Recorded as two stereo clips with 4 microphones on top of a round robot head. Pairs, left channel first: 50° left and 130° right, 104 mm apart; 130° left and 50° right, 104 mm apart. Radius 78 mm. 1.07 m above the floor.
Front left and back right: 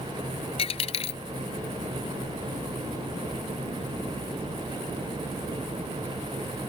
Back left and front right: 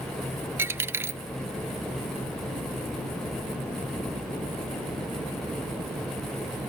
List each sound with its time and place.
0.6 s a dropped coin: 20° left